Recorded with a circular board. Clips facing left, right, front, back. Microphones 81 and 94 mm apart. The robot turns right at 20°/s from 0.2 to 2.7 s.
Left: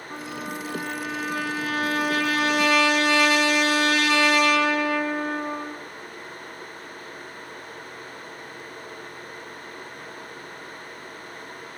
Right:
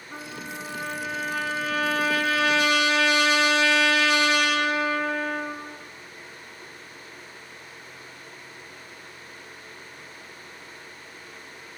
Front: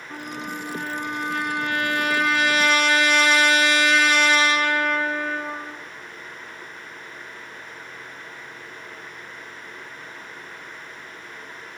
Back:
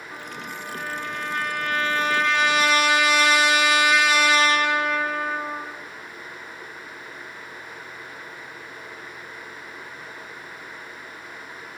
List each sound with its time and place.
0.1 s a trumpet: 45° left, 7.5 m; by 5.8 s 95° left, 7.5 m